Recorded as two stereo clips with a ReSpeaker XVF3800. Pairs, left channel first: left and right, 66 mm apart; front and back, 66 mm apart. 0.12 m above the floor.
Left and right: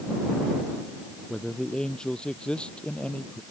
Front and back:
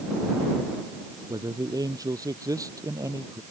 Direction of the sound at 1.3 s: 170° left.